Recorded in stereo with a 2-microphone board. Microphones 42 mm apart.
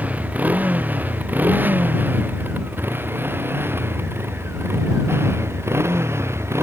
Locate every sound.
0.0 s a motorcycle: 35° right (ahead or behind); by 6.6 s 75° right (ahead or behind)